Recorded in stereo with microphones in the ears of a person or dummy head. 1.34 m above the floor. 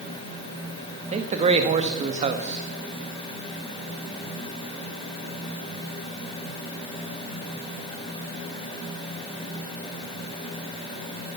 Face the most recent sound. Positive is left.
turn(degrees=-35)  # may be behind; listen again after turning